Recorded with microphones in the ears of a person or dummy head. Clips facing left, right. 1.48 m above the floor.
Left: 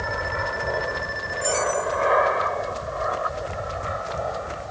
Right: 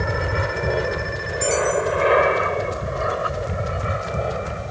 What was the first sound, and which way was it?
An aircraft, 40° right (ahead or behind).